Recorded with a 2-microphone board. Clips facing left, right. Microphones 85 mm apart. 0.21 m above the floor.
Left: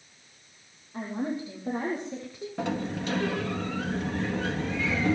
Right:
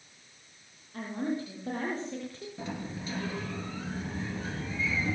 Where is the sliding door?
70° left (ahead or behind), 2.5 m.